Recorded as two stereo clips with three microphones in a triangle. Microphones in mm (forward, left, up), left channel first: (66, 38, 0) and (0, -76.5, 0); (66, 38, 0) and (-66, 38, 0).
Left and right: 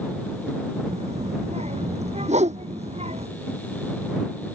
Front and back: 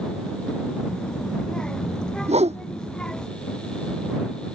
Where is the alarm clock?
I don't hear an alarm clock.